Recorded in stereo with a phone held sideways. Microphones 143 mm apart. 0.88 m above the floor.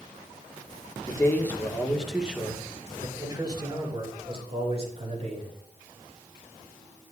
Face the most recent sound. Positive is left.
turn(degrees=-45)  # may be behind; listen again after turning